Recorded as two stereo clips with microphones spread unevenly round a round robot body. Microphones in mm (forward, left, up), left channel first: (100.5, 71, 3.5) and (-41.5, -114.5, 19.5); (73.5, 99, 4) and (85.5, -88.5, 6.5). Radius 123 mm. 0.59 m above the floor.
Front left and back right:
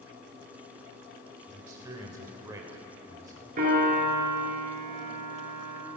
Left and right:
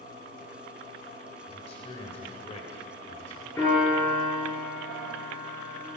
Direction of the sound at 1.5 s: 155° left.